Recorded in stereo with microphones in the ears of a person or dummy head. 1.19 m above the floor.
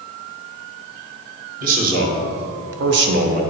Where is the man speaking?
45° right (ahead or behind), 1.8 m; by 3.4 s 35° right (ahead or behind), 0.9 m.